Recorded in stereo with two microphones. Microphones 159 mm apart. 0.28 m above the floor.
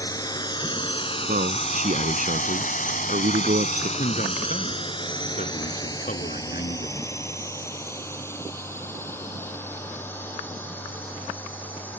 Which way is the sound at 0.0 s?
25° left (ahead or behind).